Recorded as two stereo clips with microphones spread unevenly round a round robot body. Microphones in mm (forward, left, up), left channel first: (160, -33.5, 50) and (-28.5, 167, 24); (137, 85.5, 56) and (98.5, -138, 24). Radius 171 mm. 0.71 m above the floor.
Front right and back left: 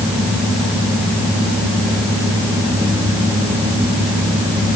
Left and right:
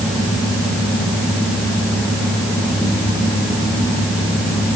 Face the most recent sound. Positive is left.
No sound to turn to.